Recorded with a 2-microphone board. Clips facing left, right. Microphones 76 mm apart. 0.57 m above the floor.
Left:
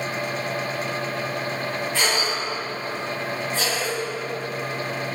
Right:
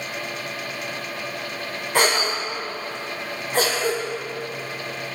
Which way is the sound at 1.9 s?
60° right (ahead or behind).